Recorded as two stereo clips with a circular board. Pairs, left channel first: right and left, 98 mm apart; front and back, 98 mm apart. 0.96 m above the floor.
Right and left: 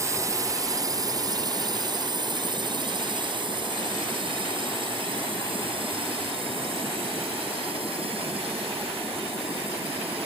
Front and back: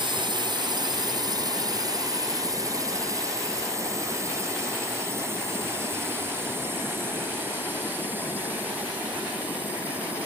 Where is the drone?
145° left; by 10.3 s 105° left.